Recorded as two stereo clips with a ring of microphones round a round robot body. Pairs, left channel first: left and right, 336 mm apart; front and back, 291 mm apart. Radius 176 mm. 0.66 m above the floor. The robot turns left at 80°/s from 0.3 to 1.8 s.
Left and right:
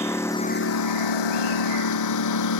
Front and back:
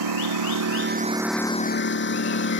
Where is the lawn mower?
175° left; by 2.6 s 50° left.